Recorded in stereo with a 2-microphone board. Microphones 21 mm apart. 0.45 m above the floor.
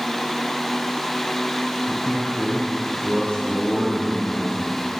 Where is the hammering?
No hammering in this recording.